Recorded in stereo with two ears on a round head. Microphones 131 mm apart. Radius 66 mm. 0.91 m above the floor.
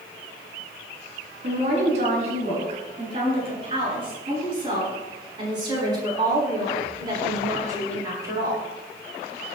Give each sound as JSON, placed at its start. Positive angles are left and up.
{"t": 1.4, "sound": "a woman speaking", "side_deg": -55, "distance_m": 7.5}